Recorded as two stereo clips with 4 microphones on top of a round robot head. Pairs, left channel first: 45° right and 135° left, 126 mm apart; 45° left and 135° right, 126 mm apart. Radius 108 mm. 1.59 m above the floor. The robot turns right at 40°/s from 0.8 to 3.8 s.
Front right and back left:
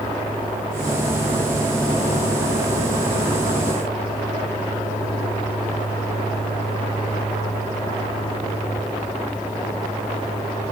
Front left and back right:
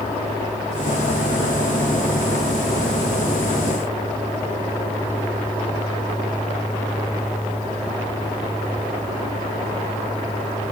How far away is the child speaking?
No child speaking in this recording.